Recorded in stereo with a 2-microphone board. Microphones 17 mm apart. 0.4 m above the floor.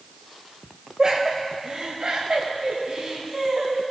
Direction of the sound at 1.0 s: 45° right (ahead or behind).